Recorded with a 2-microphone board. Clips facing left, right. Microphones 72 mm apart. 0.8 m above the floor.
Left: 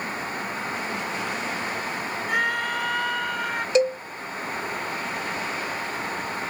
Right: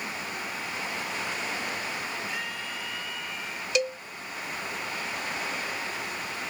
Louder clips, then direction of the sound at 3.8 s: Left 8 dB; 30° left (ahead or behind).